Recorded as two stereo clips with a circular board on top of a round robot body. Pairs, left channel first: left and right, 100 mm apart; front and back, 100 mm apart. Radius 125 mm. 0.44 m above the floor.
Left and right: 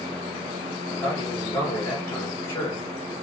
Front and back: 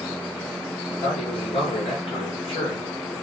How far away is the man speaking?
About 9 m.